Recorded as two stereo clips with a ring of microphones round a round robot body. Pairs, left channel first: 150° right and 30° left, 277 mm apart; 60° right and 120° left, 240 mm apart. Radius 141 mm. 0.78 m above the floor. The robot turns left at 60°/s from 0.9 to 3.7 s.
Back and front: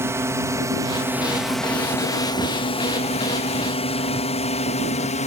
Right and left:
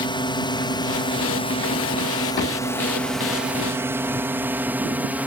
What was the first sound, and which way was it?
A drone, 35° right.